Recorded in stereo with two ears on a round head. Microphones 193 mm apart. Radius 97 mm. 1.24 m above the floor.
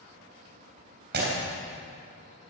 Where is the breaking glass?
50° right (ahead or behind), 3.5 m.